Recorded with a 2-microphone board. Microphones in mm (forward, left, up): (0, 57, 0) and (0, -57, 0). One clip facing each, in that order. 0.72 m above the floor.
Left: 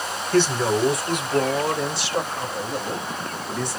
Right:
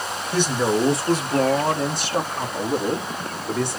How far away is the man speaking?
About 1.2 m.